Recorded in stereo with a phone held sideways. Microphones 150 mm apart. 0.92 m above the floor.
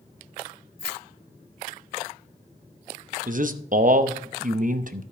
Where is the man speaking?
60° right (ahead or behind), 0.8 m.